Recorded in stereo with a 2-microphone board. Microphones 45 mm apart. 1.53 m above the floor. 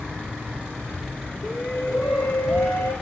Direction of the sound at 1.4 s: 60° left (ahead or behind).